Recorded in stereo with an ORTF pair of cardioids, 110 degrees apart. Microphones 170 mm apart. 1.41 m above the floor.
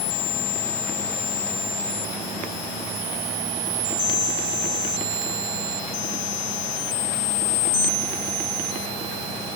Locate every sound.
Only background noise.